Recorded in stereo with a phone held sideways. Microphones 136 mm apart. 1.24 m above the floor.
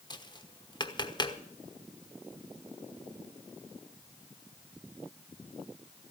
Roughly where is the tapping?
Left.